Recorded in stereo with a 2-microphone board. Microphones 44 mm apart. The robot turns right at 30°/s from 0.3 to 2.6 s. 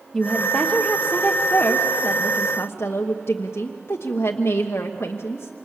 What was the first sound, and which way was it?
A woman speaking, 5° left.